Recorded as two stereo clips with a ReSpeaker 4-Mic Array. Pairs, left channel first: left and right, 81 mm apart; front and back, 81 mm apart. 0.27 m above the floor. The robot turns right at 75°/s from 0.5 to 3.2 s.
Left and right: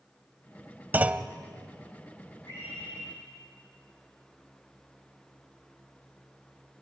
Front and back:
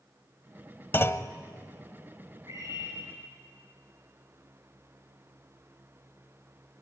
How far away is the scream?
About 8 m.